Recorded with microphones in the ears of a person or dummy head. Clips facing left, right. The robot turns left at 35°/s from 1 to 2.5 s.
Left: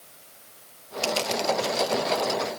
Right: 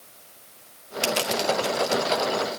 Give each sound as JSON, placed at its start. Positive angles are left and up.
{"t": 1.0, "sound": "crushing", "side_deg": -20, "distance_m": 1.6}